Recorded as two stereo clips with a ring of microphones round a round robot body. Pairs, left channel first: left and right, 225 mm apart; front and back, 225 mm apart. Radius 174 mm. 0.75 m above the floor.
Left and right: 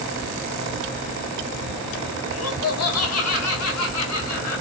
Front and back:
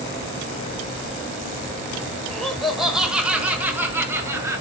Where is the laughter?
85° left, 4 m; by 4.6 s 105° left, 5 m.